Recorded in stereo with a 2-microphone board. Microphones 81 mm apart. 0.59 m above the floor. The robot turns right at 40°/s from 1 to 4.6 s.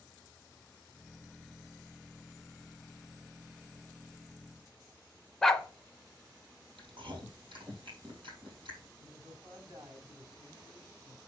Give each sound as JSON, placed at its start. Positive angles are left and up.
{"t": 5.4, "sound": "a dog barking", "side_deg": 5, "distance_m": 0.9}
{"t": 6.8, "sound": "chewing", "side_deg": -85, "distance_m": 4.0}
{"t": 9.0, "sound": "a man speaking", "side_deg": -45, "distance_m": 5.0}